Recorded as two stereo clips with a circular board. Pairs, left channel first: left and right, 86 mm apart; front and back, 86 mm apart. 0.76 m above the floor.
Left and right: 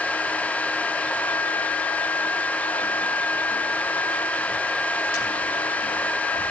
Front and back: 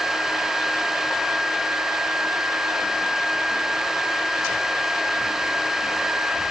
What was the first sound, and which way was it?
Only background noise.